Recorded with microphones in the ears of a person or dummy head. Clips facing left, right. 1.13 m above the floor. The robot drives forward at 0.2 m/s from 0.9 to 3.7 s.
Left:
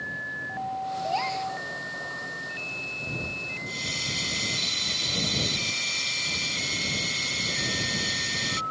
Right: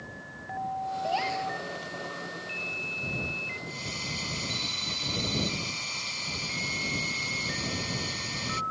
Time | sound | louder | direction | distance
1.0 | a gasp | even | 20° right (ahead or behind) | ?
3.7 | a hiss | left 3 dB | 15° left (ahead or behind) | ?